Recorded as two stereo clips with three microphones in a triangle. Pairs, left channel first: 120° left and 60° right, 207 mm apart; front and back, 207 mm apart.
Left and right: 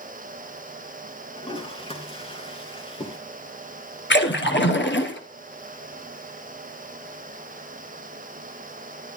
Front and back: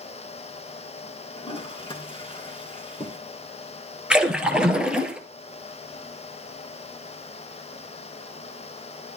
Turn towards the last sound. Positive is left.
turn(degrees=95)